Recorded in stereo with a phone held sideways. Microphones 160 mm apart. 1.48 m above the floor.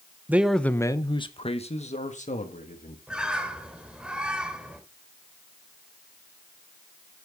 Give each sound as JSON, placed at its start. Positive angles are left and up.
{"t": 0.3, "sound": "a man speaking", "side_deg": -10, "distance_m": 0.7}
{"t": 3.1, "sound": "a bird", "side_deg": -5, "distance_m": 1.8}